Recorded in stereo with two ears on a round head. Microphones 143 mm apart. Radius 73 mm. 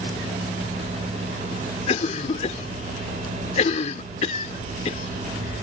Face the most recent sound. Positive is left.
turn(degrees=45)  # may be behind; listen again after turning